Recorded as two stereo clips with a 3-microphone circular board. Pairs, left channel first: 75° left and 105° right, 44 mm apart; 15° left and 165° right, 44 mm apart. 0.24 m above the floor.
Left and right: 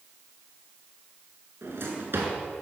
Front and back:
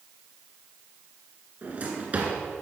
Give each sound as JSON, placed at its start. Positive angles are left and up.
{"t": 1.6, "sound": "a drawer", "azimuth_deg": -120, "distance_m": 1.6}